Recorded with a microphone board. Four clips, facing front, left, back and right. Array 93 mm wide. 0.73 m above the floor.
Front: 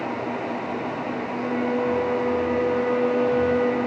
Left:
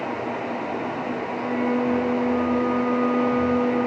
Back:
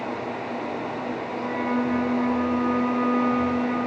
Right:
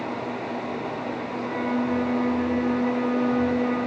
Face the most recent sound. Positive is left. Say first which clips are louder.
# left 3 dB, front 1 dB
turn(degrees=-175)